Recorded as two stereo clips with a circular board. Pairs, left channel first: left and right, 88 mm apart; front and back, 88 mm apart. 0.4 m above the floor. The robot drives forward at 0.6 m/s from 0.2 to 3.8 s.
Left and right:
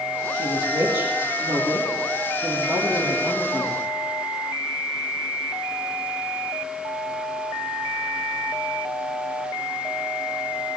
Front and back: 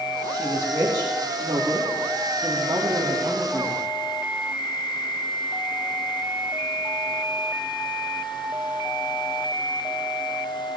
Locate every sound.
0.3 s a woman speaking: 120° right, 5.5 m; by 3.9 s 135° right, 6.5 m